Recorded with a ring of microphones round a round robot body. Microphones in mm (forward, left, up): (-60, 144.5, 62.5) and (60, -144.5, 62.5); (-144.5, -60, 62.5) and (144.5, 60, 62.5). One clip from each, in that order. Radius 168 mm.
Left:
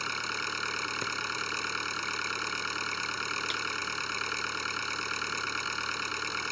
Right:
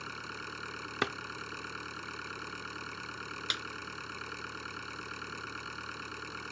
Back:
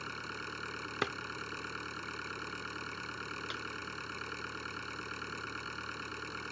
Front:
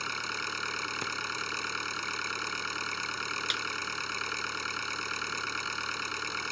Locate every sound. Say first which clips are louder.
0.0 s an engine running: left 9 dB, front 8 dB; 65° left
1.0 s a drawer: even, front 1 dB; 90° right
3.5 s a snare drum: left 1 dB, front 12 dB; 5° left